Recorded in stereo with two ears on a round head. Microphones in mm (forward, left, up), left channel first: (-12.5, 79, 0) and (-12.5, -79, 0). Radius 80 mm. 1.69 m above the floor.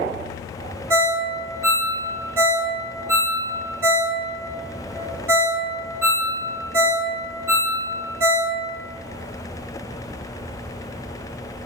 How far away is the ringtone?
About 0.5 m.